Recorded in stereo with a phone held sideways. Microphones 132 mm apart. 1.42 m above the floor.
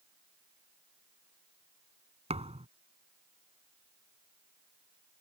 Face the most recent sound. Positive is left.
turn(degrees=-55)  # may be behind; listen again after turning